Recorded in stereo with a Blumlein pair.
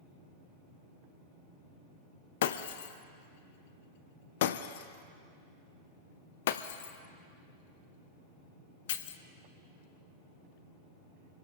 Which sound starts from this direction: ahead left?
Breaking glass, at 2.4 s.